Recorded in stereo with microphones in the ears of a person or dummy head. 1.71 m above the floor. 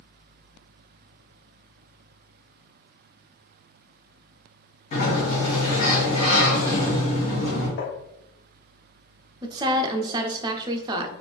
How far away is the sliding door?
About 1.8 m.